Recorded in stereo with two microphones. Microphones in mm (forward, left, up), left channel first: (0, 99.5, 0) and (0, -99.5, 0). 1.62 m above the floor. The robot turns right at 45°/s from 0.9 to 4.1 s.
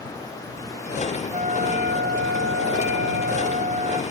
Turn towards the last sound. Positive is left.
turn(degrees=-25)